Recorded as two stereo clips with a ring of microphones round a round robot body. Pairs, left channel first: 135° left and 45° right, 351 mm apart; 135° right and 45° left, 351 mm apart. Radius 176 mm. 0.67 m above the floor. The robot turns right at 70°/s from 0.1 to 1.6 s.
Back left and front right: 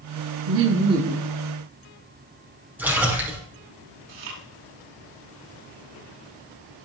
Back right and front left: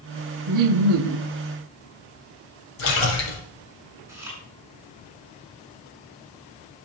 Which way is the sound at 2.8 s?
130° right.